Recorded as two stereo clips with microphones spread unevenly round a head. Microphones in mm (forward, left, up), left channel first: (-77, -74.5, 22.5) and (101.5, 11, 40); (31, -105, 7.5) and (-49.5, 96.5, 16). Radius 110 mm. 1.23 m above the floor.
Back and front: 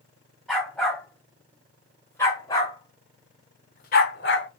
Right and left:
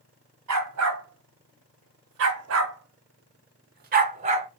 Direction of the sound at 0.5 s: 115° left.